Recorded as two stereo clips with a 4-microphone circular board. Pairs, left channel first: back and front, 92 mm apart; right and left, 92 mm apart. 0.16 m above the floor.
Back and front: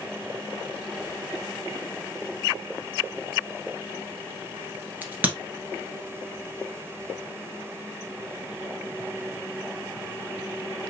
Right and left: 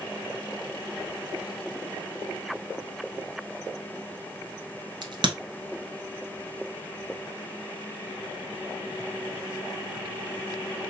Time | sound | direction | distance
5.0 | a crack | 70° left | 1.3 m